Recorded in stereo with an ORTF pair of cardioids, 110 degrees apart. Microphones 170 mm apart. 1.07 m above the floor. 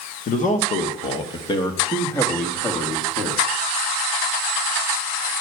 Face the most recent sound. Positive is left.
turn(degrees=5)